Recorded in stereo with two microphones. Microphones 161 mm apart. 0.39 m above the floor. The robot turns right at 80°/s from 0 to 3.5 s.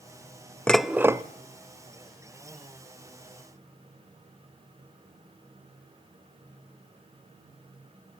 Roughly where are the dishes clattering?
Behind.